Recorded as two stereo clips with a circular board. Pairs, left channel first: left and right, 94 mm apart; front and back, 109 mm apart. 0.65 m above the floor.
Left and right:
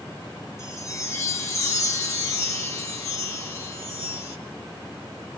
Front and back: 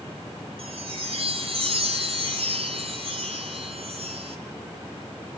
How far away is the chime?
About 3.5 m.